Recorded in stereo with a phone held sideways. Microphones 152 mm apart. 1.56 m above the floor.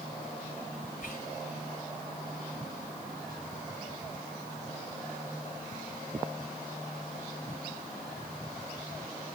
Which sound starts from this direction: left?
Whispering, at 1.0 s.